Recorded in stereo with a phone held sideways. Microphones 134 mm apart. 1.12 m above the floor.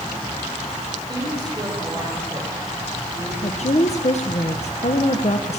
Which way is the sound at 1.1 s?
30° right (ahead or behind).